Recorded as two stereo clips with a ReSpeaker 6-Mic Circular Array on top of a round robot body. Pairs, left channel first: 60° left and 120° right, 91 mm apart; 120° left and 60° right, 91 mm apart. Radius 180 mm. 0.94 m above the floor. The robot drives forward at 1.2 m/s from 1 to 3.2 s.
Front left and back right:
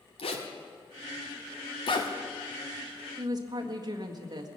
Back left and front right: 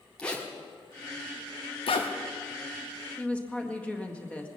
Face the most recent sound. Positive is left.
turn(degrees=-165)